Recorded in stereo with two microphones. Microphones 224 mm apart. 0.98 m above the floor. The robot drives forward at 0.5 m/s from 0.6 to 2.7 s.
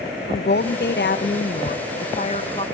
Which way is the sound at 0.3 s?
50° left (ahead or behind).